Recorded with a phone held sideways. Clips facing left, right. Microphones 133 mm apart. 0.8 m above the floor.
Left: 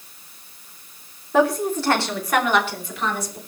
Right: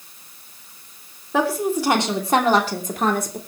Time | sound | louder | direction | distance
1.3 | a woman speaking | left 2 dB | centre (ahead or behind) | 3 m